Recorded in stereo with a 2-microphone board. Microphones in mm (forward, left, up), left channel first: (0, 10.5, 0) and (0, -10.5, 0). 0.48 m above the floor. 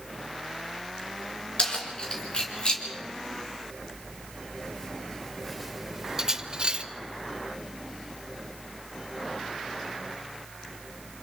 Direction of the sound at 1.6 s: 50° left (ahead or behind).